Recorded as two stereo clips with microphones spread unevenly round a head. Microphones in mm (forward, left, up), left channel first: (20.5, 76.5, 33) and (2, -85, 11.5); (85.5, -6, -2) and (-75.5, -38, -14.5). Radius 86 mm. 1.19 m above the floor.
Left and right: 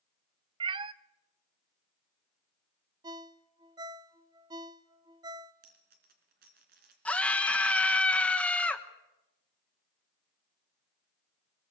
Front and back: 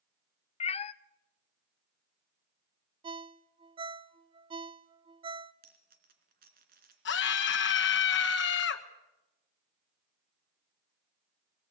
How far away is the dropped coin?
About 3 m.